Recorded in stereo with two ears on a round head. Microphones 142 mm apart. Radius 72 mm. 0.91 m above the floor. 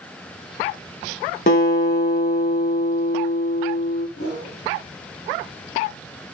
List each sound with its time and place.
1.5 s a guitar: 50° left (ahead or behind), 0.7 m
4.2 s a whoosh: 50° left (ahead or behind), 1.3 m